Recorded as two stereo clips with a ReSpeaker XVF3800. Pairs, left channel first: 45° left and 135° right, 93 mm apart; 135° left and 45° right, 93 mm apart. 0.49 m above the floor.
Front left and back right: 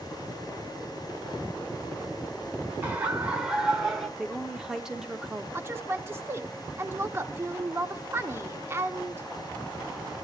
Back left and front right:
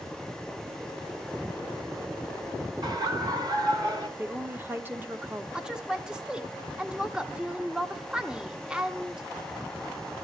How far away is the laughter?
About 2 m.